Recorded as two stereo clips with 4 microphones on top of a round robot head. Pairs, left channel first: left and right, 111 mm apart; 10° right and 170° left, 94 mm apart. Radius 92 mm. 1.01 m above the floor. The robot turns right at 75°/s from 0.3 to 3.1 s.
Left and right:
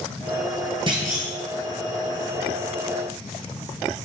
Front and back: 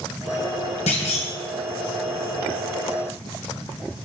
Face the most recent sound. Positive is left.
turn(degrees=135)